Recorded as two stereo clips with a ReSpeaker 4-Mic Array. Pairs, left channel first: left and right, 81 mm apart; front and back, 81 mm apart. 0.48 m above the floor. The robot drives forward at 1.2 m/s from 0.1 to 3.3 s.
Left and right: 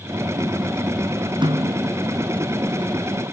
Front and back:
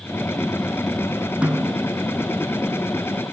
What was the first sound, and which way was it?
A snare drum, 105° right.